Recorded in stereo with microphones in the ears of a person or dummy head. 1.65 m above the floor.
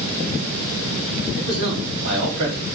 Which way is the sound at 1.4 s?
50° right (ahead or behind).